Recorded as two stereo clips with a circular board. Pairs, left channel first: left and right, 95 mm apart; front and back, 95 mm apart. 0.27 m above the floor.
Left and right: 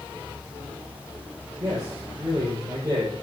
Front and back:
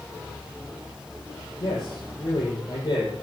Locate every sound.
1.6 s a man speaking: 45° right, 8 m